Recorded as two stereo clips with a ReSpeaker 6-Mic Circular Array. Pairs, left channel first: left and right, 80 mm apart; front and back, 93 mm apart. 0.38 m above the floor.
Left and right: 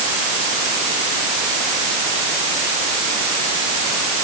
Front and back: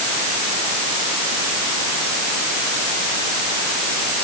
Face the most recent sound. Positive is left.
No sound to turn to.